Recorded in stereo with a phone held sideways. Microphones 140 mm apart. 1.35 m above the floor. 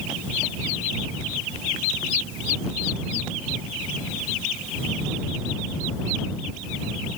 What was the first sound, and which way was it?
Only background noise.